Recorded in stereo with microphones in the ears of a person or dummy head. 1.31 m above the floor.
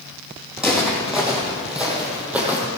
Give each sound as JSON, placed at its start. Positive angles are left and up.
{"t": 0.6, "sound": "footsteps", "side_deg": -5, "distance_m": 4.0}